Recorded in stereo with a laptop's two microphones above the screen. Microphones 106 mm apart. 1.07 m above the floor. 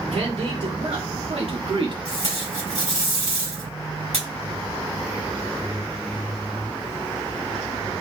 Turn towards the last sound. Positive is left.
turn(degrees=-75)  # may be behind; listen again after turning